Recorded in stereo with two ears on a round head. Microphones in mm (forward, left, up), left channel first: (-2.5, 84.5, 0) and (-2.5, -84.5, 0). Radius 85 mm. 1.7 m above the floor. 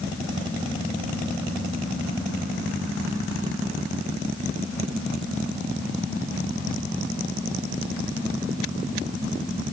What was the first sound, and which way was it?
Only background noise.